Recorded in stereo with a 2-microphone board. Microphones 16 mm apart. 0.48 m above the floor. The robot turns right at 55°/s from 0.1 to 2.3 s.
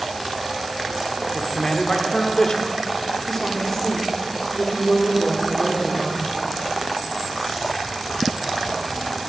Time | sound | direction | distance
1.3 | a man speaking | 25° left | 0.9 m
3.3 | a woman speaking | 20° left (ahead or behind) | 1.4 m